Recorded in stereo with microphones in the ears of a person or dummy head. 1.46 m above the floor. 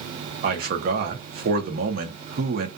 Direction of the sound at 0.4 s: 50° right (ahead or behind).